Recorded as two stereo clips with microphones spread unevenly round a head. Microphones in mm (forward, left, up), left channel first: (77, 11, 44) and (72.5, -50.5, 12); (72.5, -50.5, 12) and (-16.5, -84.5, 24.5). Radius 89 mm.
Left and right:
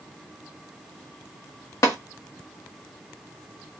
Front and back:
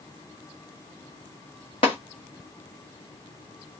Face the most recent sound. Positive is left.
turn(degrees=85)